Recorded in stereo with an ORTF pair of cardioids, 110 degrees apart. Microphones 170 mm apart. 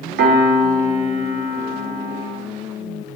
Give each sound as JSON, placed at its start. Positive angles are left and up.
{"t": 0.2, "sound": "a piano", "azimuth_deg": -70, "distance_m": 3.5}